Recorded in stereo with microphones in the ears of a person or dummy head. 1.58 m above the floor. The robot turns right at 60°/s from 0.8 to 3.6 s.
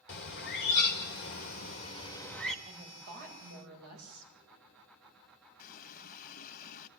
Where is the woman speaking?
150° right, 9 m; by 4.3 s 95° right, 9 m.